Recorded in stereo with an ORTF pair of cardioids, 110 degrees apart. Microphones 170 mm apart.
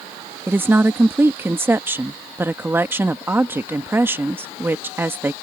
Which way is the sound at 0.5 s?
15° right.